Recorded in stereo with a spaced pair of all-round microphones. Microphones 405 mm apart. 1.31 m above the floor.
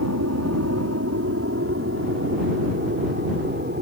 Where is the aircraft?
40° right (ahead or behind); by 3.8 s 25° right (ahead or behind).